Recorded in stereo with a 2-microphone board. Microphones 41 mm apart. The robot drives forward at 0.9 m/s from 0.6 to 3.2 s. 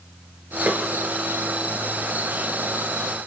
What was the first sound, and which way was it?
A snare drum, 50° right (ahead or behind).